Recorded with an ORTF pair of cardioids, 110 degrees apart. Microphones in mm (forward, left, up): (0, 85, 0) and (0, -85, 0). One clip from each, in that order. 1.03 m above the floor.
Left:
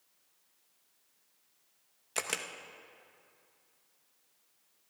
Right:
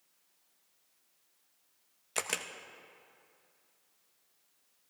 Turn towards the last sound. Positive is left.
turn(degrees=-5)